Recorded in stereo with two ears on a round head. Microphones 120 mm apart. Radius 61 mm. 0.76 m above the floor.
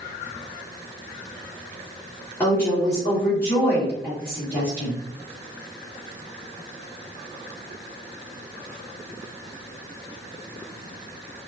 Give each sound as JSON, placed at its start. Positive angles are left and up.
{"t": 2.4, "sound": "a woman speaking", "side_deg": 15, "distance_m": 1.8}